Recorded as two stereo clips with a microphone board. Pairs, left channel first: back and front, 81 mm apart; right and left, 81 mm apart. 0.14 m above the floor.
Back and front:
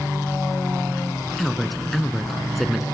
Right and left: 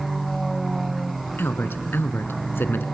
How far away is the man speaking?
About 1.2 m.